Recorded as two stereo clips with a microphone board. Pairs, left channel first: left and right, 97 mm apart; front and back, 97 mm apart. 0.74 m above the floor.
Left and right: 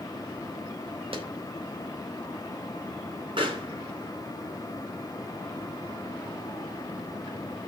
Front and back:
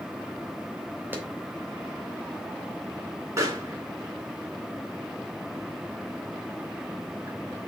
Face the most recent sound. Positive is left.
turn(degrees=-120)